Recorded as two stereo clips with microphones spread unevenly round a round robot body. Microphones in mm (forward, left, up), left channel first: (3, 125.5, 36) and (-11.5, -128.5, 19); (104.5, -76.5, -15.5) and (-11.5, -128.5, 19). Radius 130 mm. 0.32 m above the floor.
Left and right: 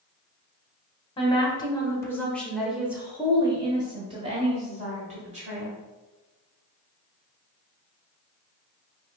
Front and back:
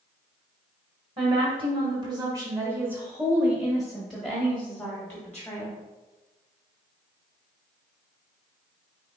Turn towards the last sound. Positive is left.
turn(degrees=-35)